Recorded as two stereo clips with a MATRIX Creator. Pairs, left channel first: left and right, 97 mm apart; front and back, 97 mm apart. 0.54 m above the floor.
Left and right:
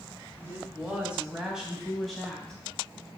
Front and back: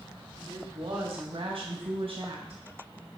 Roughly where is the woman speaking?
Behind.